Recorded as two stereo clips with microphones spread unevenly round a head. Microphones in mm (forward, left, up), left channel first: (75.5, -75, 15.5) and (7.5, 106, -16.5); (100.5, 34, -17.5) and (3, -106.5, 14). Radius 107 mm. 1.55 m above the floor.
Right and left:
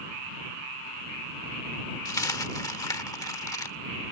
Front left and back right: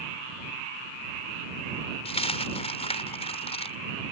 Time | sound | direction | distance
2.0 | a dropped coin | straight ahead | ?